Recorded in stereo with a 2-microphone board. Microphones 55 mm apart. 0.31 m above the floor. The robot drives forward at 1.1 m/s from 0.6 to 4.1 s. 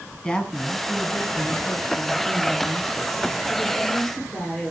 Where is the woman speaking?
15° left (ahead or behind), 2.5 m; by 4.7 s 5° left (ahead or behind), 6 m.